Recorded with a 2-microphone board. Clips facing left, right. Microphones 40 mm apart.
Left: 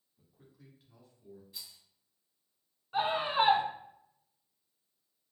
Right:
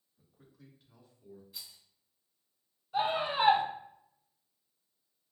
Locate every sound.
0.2 s a man speaking: 20° left (ahead or behind), 1.2 m; by 1.4 s 5° right (ahead or behind), 1.2 m
1.5 s a rattle: centre (ahead or behind), 1.2 m
2.9 s a scream: 50° left (ahead or behind), 1.7 m